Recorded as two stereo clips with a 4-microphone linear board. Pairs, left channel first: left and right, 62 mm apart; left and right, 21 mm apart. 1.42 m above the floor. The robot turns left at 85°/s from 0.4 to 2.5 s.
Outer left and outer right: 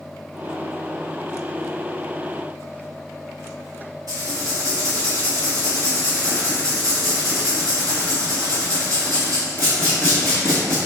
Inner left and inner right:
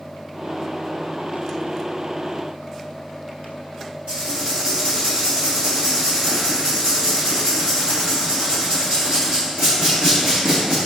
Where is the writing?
65° right (ahead or behind), 2 m.